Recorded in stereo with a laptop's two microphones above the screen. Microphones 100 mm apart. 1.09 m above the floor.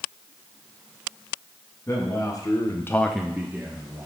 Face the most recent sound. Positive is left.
turn(degrees=-25)  # may be behind; listen again after turning